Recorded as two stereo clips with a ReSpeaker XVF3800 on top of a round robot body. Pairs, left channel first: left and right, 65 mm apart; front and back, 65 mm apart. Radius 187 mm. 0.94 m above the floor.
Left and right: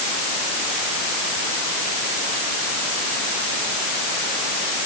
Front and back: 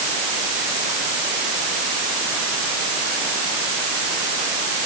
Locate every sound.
Only background noise.